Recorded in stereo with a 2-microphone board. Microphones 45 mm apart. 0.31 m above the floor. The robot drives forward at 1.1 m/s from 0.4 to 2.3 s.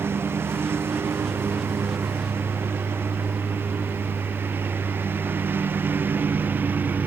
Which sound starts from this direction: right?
A lawn mower, at 0.0 s.